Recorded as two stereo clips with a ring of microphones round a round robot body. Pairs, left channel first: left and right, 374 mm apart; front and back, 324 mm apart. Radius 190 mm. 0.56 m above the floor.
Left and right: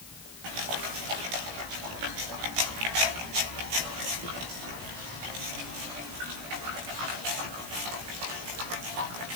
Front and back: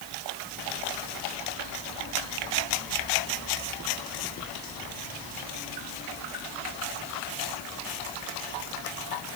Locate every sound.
Only background noise.